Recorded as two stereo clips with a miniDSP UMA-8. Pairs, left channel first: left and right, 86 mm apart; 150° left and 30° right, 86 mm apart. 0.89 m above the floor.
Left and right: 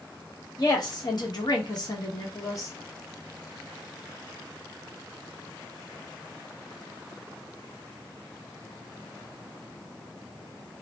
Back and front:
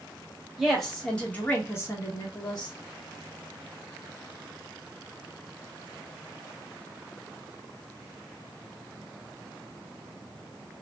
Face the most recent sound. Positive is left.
turn(degrees=135)